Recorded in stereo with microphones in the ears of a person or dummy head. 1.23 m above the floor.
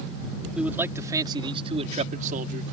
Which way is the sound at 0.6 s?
5° right (ahead or behind).